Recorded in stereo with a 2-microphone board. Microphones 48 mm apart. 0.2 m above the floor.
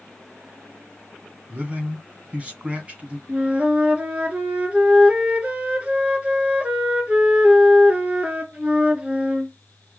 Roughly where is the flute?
Right.